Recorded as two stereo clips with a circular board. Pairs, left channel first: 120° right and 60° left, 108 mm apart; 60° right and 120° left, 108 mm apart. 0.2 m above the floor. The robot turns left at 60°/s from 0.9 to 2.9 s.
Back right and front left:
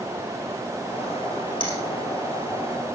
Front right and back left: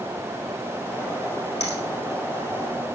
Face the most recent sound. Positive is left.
turn(degrees=-155)